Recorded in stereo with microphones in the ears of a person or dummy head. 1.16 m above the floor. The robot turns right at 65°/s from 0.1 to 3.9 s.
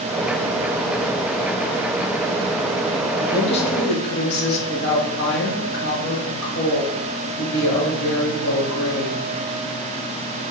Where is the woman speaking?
10° left, 2.5 m; by 9.3 s 55° left, 2.5 m.